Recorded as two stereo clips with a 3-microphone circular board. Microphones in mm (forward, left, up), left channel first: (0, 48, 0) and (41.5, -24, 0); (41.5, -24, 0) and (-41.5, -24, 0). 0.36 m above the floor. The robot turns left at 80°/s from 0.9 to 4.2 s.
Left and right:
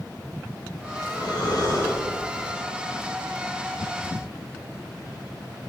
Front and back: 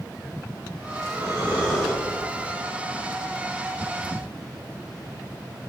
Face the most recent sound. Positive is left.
turn(degrees=-100)